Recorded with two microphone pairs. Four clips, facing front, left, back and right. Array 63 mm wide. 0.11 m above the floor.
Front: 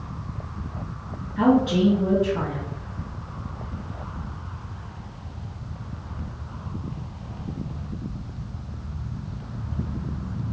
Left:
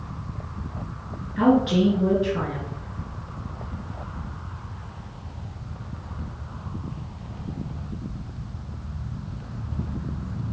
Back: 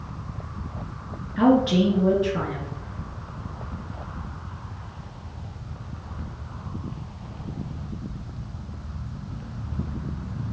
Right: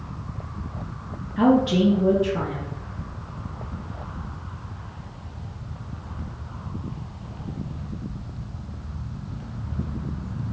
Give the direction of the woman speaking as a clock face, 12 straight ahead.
7 o'clock.